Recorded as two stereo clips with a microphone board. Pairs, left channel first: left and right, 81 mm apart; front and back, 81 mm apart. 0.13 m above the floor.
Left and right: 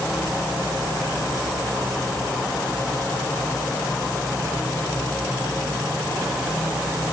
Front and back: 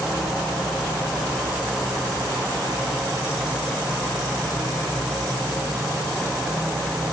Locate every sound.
Only background noise.